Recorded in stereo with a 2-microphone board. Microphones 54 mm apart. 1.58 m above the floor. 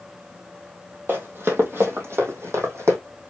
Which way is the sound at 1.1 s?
35° right (ahead or behind).